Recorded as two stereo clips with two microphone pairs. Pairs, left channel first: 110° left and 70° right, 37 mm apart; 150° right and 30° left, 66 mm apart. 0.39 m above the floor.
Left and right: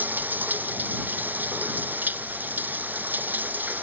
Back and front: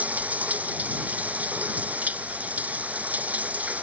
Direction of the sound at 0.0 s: 35° right.